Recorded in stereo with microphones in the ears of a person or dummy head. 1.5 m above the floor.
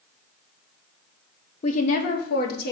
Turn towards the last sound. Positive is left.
turn(degrees=60)  # may be behind; listen again after turning